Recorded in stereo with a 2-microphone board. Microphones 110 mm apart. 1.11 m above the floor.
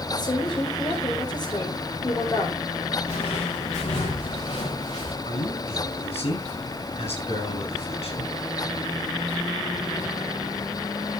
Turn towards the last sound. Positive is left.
turn(degrees=70)  # may be behind; listen again after turning